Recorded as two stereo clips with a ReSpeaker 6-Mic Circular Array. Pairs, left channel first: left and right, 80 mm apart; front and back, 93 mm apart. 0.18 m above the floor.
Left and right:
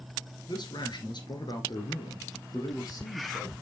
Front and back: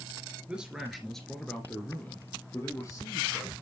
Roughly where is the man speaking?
Left.